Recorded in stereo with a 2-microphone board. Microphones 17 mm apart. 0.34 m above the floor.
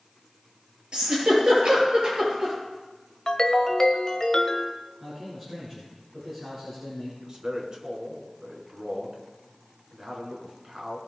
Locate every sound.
0.9 s a giggle: 40° right (ahead or behind), 6 m
3.3 s a ringtone: 30° left (ahead or behind), 1.2 m
5.0 s a man speaking: 15° right (ahead or behind), 4.5 m
7.2 s a man speaking: 35° right (ahead or behind), 3.5 m